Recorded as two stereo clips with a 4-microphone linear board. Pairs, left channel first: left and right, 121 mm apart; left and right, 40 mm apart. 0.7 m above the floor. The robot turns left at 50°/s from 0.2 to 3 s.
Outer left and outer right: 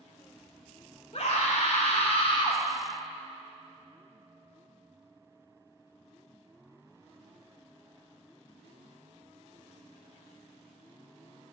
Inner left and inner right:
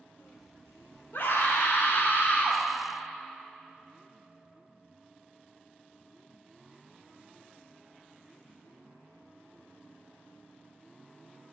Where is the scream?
120° left, 2.5 m; by 2.6 s 45° left, 2.5 m.